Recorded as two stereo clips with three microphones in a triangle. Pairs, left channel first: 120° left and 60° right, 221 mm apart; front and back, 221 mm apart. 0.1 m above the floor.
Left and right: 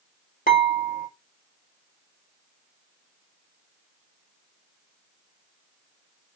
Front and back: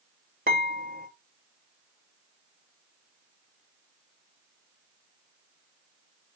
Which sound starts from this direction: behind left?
Dishes clattering, at 0.5 s.